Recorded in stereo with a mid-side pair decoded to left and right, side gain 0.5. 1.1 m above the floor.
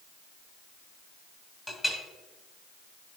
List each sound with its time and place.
1.7 s a clink: 15° left, 2.5 m